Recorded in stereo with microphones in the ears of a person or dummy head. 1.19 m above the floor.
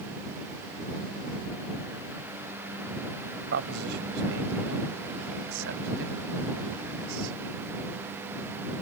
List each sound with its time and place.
3.5 s a man speaking: 70° right (ahead or behind); by 7.4 s 80° right